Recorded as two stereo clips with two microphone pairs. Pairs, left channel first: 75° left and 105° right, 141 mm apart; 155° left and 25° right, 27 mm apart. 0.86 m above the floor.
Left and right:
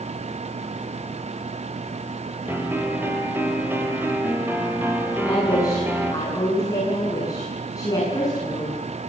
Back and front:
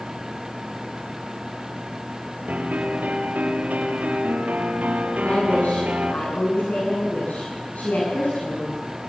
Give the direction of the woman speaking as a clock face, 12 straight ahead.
7 o'clock.